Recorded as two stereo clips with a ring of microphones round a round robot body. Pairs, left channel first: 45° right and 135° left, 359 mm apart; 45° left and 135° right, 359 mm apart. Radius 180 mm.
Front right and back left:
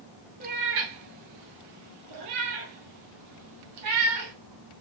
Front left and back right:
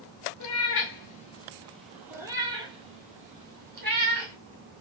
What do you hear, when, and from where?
0.4 s a cat meowing: 75° left, 1.0 m; by 4.3 s 160° left, 2.5 m